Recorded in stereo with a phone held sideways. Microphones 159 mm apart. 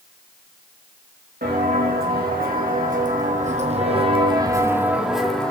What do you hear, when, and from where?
1.4 s footsteps: 70° right (ahead or behind), 4 m; by 5.5 s 5° left (ahead or behind), 2.5 m